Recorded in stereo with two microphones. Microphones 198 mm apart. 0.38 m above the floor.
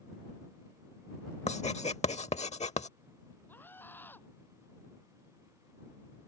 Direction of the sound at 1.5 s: 35° left (ahead or behind).